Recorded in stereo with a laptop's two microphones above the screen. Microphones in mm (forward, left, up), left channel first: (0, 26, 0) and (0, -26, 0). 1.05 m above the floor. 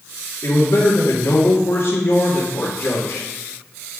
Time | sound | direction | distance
0.4 | a man speaking | 65° left (ahead or behind) | 1.6 m